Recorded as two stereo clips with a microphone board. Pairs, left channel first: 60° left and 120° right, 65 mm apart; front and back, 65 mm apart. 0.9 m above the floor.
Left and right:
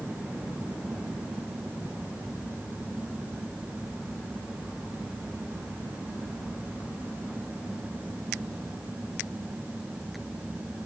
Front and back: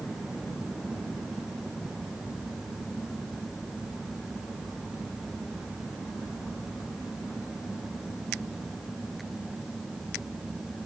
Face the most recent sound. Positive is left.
No sound to turn to.